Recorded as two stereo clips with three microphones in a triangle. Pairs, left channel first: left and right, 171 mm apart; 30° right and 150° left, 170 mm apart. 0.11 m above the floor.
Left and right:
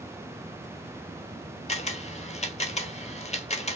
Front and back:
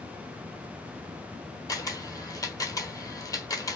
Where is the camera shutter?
40° left, 0.5 m.